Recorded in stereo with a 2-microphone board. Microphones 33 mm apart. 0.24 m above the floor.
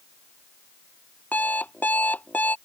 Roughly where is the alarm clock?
Left.